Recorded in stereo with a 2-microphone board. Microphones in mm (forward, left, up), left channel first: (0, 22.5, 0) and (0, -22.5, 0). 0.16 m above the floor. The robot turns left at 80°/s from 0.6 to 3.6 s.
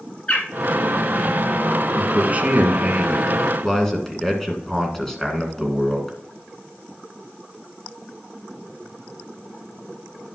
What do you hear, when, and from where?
0.3 s a bird: 20° left (ahead or behind), 2.5 m
1.9 s a man speaking: 65° right, 1.8 m; by 6.2 s 160° left, 1.8 m